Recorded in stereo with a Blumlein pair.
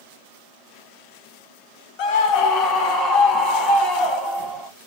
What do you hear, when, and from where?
2.0 s a scream: 40° left, 1.0 m; by 4.7 s 20° left, 2.5 m